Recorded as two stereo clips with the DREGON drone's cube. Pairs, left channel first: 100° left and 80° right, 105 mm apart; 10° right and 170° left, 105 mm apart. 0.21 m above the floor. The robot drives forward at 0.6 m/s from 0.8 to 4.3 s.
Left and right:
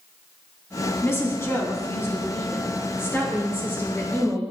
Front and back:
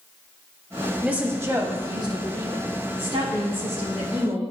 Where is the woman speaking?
110° left, 1.0 m; by 4.4 s 170° left, 2.5 m.